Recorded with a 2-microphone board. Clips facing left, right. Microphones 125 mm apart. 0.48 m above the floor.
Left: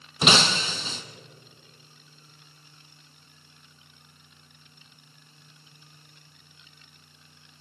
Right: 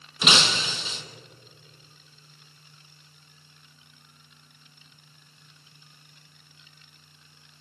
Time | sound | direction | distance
0.2 | breaking glass | 40° left (ahead or behind) | 1.7 m